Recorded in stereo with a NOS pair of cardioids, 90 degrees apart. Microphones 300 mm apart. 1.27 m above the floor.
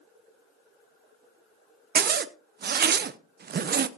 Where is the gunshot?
No gunshot in this recording.